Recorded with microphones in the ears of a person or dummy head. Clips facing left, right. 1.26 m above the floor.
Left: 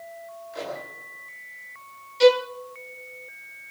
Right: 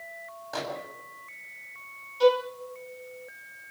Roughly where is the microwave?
Right.